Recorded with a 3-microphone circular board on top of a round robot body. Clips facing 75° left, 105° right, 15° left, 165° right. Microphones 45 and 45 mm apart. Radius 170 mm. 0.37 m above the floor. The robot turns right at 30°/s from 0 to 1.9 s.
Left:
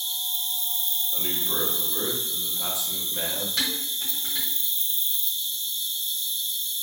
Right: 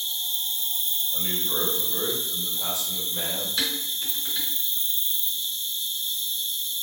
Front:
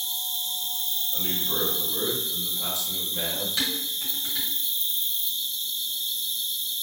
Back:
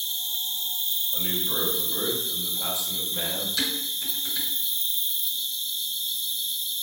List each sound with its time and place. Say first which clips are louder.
0.0 s an insect: right 1 dB, back 1 dB; 140° right, 0.7 m; by 6.8 s 80° right, 0.7 m
1.1 s a man speaking: even, even; 105° left, 1.1 m; by 3.5 s 125° left, 1.1 m
3.6 s dishes clattering: even, even; 70° left, 1.7 m